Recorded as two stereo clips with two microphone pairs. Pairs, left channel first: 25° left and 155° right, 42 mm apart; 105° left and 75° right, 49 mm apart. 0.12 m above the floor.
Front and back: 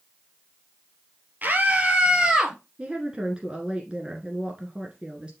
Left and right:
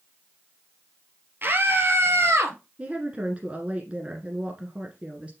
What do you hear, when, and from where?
1.4 s a scream: 115° right, 2.5 m; by 2.5 s 80° right, 2 m
2.8 s a woman speaking: 115° right, 1.4 m